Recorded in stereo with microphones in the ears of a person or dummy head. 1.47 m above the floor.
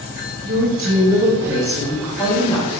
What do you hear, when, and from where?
0.4 s a woman speaking: 45° right (ahead or behind), 1.0 m; by 2.8 s 20° left (ahead or behind), 1.6 m